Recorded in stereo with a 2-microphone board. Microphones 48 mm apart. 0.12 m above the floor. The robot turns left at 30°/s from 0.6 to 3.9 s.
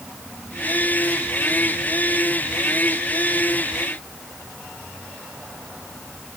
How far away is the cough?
No cough in this recording.